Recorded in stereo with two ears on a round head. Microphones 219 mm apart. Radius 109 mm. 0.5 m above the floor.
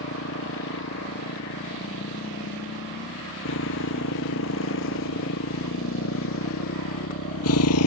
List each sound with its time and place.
0.0 s a motorcycle: 55° left (ahead or behind); by 7.9 s 70° left (ahead or behind)